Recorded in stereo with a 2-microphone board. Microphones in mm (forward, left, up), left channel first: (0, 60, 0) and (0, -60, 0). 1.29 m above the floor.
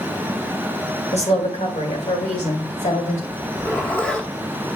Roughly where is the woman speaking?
Left.